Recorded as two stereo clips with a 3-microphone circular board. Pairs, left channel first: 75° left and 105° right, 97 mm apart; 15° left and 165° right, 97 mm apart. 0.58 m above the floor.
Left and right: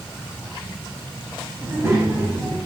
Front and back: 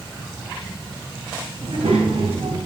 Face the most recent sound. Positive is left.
turn(degrees=-165)